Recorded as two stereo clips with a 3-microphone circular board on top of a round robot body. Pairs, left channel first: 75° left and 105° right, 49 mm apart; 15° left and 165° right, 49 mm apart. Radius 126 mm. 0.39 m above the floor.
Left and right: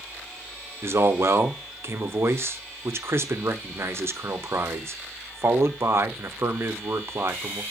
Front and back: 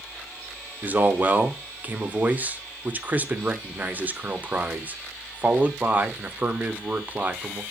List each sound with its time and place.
0.8 s a man speaking: 115° right, 1.1 m